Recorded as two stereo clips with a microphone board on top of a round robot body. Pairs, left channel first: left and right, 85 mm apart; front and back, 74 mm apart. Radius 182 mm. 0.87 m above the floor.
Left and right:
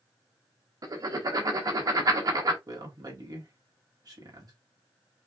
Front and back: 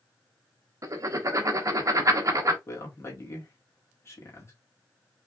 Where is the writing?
135° right, 1.0 m.